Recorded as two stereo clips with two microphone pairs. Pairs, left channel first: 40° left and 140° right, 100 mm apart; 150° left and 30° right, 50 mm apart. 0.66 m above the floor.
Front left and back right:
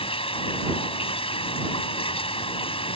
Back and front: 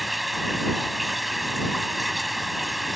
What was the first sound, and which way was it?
Running water, 55° left.